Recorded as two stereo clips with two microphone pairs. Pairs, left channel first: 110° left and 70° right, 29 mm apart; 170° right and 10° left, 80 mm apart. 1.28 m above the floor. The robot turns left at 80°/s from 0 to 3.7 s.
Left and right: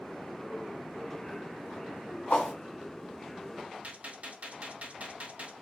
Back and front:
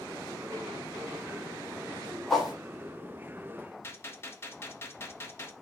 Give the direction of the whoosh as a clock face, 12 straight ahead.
9 o'clock.